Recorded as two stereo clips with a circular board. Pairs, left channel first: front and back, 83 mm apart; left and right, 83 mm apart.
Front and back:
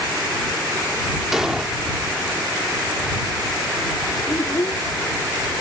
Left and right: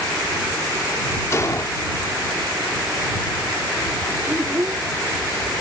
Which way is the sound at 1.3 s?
100° left.